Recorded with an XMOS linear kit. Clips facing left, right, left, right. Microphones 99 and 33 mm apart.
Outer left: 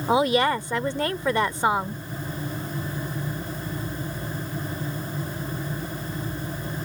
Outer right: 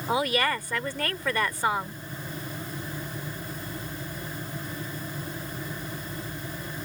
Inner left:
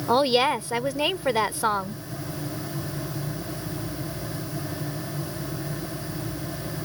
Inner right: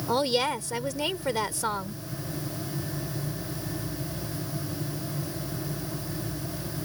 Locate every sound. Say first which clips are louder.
0.1 s a woman speaking: outer left 5 dB, inner left 5 dB; 25° left (ahead or behind)